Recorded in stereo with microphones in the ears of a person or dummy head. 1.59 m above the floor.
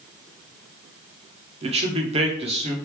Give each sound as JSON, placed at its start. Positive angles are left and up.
{"t": 1.6, "sound": "a man speaking", "side_deg": -35, "distance_m": 0.7}